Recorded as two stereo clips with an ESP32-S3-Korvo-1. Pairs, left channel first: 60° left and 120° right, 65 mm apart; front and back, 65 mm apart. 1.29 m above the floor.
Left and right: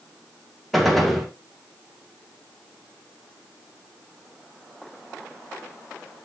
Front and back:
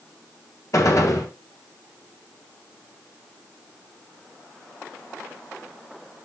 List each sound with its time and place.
0.7 s a gunshot: 30° right, 2 m